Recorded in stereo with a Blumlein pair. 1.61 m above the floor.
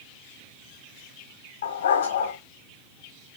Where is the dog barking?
60° left, 4 m.